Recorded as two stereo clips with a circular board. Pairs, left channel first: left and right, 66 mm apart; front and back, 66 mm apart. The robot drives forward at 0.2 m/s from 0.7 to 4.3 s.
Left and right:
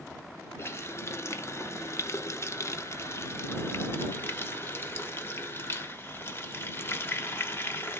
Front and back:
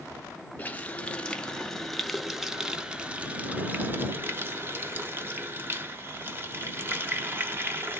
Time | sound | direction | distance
0.6 | a running tap | 60° left | 0.7 m